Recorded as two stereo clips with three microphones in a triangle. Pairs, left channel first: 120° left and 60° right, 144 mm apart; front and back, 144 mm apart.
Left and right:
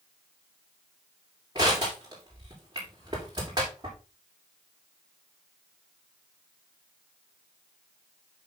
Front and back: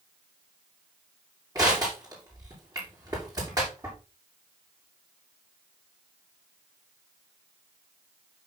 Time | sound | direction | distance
1.6 | crushing | 120° right | 6.5 m